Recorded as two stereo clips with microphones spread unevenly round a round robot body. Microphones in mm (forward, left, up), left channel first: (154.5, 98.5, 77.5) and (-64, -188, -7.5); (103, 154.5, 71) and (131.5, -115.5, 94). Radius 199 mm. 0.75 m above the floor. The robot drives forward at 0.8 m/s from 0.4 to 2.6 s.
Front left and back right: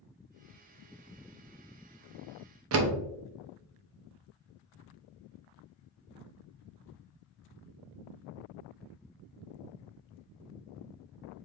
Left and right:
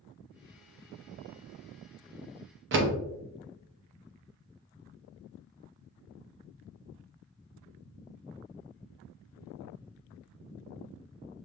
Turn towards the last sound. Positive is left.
turn(degrees=-120)